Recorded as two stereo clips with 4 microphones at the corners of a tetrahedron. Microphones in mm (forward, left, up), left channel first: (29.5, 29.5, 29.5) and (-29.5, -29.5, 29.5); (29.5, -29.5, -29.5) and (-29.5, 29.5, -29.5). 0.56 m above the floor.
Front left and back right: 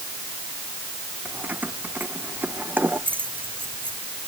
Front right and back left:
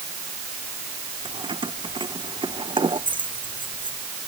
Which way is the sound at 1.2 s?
155° left.